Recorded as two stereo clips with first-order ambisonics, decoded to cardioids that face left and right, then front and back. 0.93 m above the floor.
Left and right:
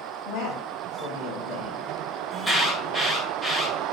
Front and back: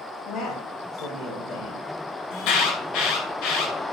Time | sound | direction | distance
0.2 | a man speaking | 50° left | 5 m
2.3 | an alarm | 10° left | 2.5 m